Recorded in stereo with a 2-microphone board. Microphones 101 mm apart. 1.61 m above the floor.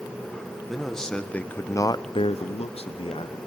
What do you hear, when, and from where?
0.7 s a man speaking: centre (ahead or behind), 1.6 m; by 3.4 s 50° left (ahead or behind), 1.2 m